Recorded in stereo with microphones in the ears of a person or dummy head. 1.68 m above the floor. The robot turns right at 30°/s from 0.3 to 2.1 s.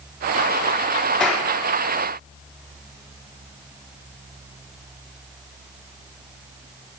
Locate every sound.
1.2 s a clap: centre (ahead or behind), 3.5 m; by 1.5 s 5° right (ahead or behind), 3.5 m